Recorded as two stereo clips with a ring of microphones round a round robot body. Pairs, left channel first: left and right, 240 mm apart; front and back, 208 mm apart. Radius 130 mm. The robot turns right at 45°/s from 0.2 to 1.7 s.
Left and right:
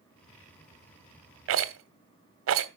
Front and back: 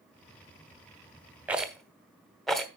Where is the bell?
I don't hear a bell.